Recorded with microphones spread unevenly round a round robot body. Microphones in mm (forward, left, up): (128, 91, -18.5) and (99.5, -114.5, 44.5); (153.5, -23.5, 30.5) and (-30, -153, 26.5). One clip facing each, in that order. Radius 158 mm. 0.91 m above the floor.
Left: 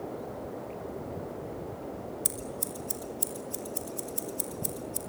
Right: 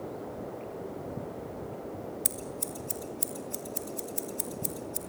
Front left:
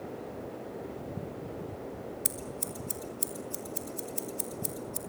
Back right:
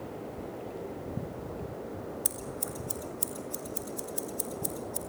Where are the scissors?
25° right, 3 m.